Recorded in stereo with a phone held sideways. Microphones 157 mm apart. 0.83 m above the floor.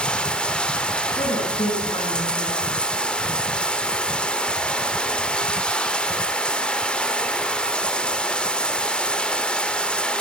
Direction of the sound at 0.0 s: 5° left (ahead or behind).